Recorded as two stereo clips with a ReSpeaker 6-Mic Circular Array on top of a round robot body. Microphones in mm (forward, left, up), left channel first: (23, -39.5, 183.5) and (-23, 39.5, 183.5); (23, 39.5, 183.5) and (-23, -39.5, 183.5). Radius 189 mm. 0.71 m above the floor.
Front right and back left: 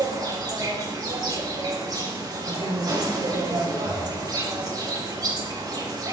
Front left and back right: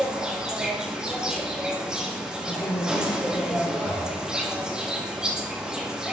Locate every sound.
0.0 s an insect: 160° left, 4.5 m
2.5 s a woman speaking: 105° left, 9 m
3.8 s breathing: 70° left, 3.5 m